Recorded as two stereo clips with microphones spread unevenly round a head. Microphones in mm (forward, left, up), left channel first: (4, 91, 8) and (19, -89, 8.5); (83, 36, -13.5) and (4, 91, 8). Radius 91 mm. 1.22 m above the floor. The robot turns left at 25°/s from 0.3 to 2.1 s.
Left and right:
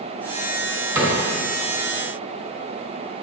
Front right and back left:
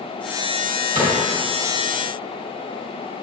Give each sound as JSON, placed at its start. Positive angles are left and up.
{"t": 0.9, "sound": "a cupboard door", "azimuth_deg": -165, "distance_m": 2.5}